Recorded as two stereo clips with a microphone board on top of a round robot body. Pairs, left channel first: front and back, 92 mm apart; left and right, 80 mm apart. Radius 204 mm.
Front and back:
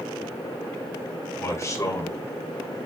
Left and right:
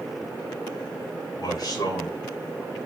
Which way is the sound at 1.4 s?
60° left.